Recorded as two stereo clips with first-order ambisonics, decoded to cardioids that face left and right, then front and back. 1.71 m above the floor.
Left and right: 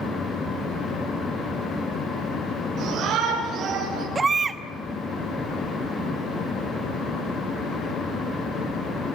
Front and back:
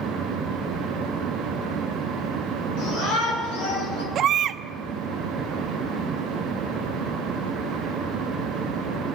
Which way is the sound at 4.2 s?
150° right.